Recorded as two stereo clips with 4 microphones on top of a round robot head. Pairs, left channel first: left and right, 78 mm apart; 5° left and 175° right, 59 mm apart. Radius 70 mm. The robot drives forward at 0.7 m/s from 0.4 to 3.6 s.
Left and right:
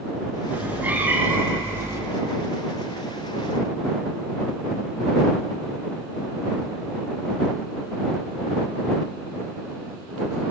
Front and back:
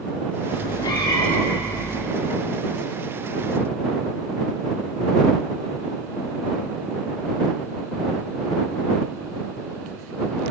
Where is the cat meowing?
20° right, 2.5 m; by 2.0 s 35° right, 1.5 m.